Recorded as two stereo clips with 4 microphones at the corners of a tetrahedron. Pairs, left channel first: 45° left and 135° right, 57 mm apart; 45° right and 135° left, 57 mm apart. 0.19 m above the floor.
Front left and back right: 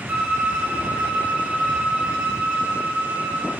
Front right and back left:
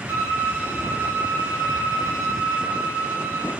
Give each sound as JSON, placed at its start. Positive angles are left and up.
{"t": 0.1, "sound": "a violin", "azimuth_deg": 150, "distance_m": 1.9}